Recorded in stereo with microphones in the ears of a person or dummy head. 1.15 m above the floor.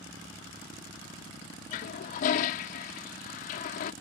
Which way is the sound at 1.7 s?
45° left (ahead or behind).